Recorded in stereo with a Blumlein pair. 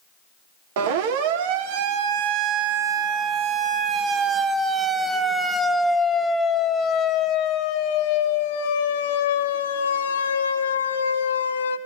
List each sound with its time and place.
0.8 s a siren: 50° right, 3.5 m; by 11.8 s 75° left, 3.5 m